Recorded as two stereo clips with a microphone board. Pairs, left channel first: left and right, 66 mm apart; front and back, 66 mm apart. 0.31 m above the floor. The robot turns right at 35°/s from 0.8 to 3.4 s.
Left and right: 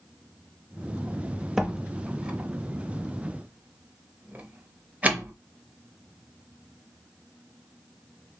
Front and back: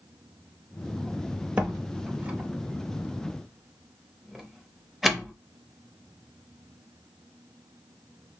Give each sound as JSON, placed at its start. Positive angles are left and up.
{"t": 1.6, "sound": "a door slam", "azimuth_deg": -165, "distance_m": 0.7}